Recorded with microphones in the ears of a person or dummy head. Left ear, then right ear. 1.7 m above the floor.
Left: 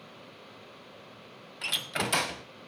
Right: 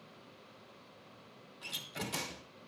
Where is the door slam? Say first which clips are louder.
Left 11 dB; 25° left (ahead or behind), 0.5 m.